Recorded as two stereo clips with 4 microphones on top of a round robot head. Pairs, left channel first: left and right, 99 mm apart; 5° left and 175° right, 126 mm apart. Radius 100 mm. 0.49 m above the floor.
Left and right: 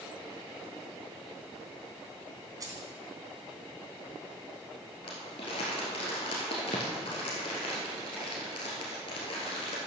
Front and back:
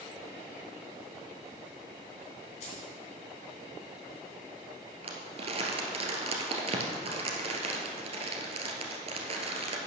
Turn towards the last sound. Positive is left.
turn(degrees=145)